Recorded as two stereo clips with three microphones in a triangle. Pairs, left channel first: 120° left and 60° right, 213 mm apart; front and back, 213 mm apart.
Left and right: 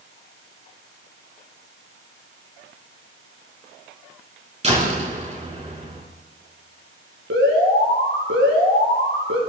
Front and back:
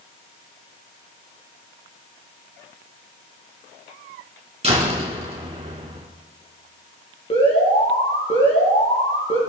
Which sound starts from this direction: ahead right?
An alarm, at 7.3 s.